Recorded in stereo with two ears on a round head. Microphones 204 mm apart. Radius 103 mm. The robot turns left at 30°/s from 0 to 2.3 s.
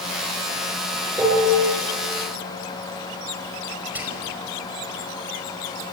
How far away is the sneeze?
No sneeze in this recording.